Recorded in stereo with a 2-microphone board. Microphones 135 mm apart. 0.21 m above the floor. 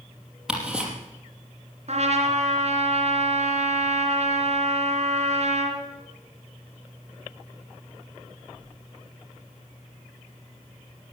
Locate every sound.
0.5 s ticking: 5° right (ahead or behind), 4.5 m
1.9 s a trumpet: 55° right (ahead or behind), 3 m